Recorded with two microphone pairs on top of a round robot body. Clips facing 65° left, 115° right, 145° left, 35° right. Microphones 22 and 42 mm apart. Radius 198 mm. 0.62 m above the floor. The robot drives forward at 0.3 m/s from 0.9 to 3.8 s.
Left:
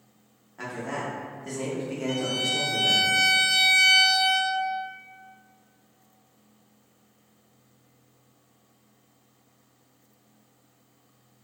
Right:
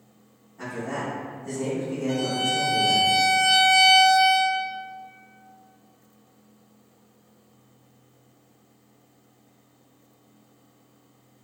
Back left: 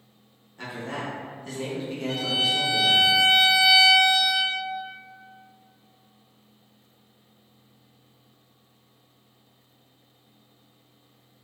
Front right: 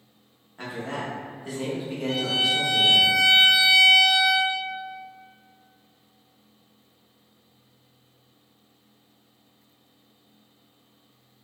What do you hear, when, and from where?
0.6 s a man speaking: 35° left, 1.0 m; by 3.1 s 90° left, 0.7 m
2.1 s a violin: 5° right, 1.3 m